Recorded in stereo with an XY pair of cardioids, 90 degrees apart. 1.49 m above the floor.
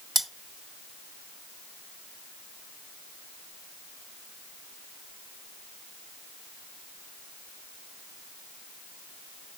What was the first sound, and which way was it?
Cutlery clinking, 40° right.